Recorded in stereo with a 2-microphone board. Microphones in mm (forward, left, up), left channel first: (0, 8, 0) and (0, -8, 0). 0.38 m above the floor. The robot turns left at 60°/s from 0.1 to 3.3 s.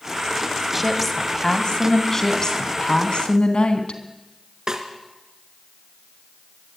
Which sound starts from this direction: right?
A snare drum, at 4.7 s.